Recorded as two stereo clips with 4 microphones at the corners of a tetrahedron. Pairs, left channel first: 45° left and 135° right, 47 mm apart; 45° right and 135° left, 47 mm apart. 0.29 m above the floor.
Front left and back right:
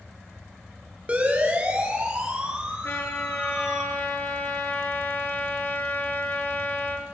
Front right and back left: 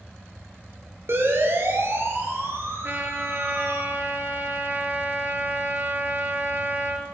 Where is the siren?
165° left, 7 m; by 3.8 s 145° left, 6.5 m.